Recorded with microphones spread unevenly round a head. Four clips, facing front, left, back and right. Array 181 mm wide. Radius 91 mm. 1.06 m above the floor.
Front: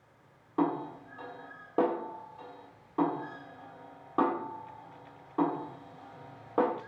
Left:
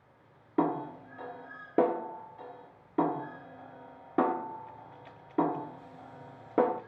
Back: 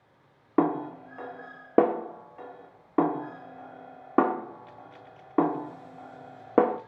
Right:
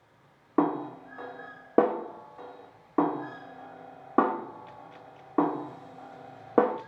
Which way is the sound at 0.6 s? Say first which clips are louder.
Right 3 dB, back 5 dB; 160° right.